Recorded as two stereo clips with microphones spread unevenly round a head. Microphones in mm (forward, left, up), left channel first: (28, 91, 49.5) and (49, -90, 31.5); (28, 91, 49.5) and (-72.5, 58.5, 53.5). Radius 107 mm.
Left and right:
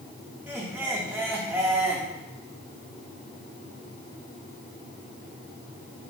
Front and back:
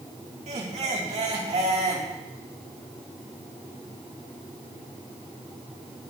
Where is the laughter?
160° right, 2.5 m.